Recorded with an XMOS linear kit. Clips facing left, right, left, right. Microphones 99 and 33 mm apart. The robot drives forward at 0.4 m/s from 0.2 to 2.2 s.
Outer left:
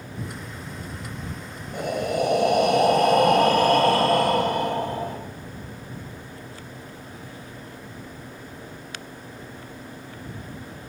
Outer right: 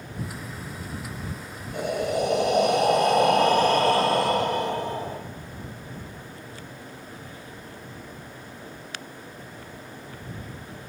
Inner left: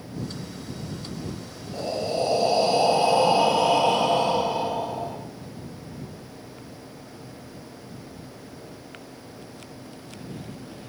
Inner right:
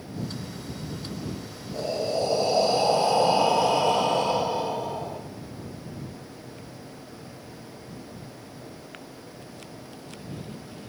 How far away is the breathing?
About 2.5 m.